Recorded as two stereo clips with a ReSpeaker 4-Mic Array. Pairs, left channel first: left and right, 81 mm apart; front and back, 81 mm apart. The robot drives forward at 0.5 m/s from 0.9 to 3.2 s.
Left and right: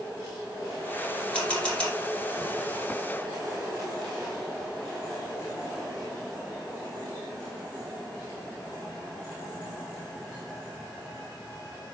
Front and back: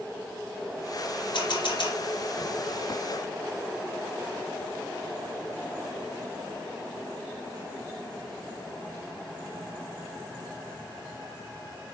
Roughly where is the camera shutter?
Ahead.